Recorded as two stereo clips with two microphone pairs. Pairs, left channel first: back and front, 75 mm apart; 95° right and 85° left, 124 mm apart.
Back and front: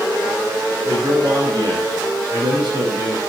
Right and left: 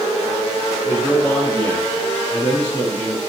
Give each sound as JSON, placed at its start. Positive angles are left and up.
{"t": 0.8, "sound": "a man speaking", "azimuth_deg": -20, "distance_m": 7.0}